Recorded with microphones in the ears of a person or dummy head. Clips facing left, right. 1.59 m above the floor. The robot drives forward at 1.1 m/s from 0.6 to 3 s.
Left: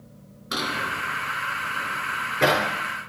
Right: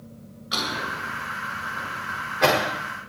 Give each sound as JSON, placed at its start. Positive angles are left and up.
{"t": 0.5, "sound": "a drawer", "side_deg": 55, "distance_m": 9.0}